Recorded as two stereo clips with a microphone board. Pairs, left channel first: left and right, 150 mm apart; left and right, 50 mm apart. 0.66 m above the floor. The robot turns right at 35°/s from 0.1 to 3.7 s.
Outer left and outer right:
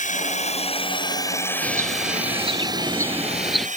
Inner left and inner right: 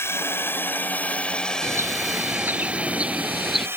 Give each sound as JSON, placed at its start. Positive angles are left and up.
{"t": 0.0, "sound": "a drone", "side_deg": 60}
{"t": 1.6, "sound": "a bird", "azimuth_deg": -70}